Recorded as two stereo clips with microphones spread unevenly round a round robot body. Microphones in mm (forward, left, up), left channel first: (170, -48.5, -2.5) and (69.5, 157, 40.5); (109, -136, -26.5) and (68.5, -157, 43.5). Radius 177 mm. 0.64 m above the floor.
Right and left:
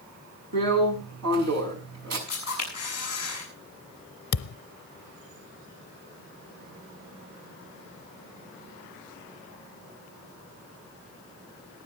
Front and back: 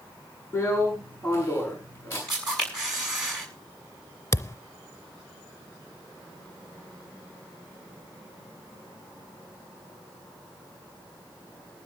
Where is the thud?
55° right, 0.7 m.